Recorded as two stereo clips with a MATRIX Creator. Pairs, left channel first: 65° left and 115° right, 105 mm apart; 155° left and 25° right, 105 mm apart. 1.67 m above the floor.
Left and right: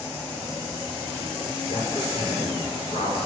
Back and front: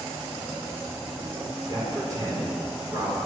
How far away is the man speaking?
About 7 m.